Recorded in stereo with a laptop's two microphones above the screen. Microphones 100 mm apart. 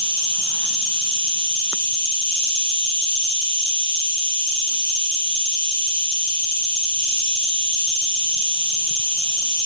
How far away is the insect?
About 1.2 m.